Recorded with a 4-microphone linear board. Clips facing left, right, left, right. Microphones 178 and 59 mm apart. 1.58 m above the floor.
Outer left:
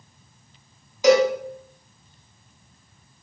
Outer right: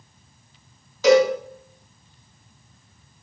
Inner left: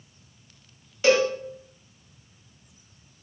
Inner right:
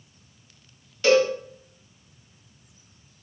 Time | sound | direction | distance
1.0 | a cowbell | 15° left (ahead or behind) | 2.0 m